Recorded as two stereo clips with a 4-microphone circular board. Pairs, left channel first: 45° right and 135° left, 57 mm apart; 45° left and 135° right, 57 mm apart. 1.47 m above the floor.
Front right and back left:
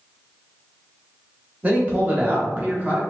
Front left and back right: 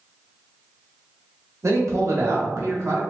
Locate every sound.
1.6 s a man speaking: 165° right, 0.8 m